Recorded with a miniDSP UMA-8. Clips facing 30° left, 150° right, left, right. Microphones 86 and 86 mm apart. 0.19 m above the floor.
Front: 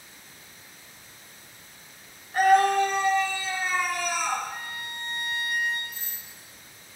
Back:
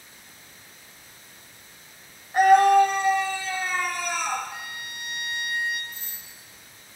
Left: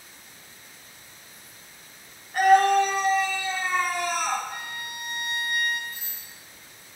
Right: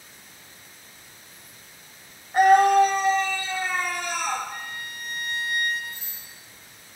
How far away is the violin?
About 1.0 m.